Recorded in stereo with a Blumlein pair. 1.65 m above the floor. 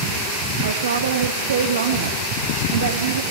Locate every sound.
0.6 s a woman speaking: 65° right, 1.0 m